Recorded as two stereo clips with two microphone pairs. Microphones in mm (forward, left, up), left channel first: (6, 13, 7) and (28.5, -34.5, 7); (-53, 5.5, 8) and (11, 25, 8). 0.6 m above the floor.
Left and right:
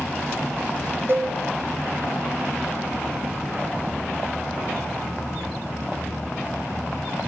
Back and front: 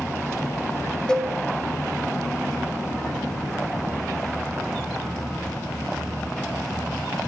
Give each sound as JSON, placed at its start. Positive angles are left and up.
{"t": 1.1, "sound": "a cowbell", "azimuth_deg": -90, "distance_m": 0.6}